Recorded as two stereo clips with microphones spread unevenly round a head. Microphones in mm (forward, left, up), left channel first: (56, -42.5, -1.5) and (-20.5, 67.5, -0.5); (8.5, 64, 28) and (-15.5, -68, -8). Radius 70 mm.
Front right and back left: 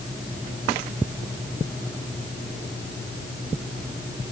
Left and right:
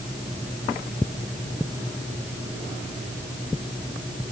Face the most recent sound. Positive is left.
No sound to turn to.